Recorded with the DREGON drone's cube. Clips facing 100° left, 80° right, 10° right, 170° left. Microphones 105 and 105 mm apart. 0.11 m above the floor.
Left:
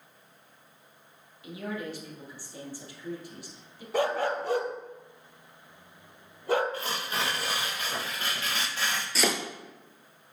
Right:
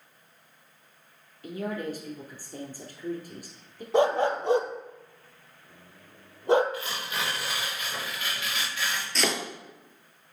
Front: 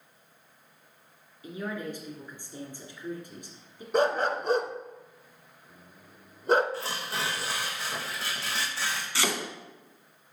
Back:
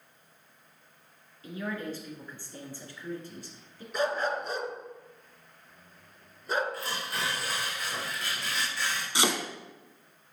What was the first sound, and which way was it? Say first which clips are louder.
A man speaking: right 4 dB, even; 80° right.